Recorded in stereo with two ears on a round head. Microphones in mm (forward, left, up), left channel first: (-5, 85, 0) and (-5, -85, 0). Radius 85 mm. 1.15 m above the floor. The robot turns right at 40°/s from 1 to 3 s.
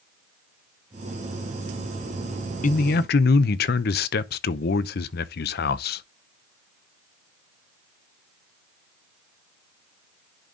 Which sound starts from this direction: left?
A man speaking, at 2.6 s.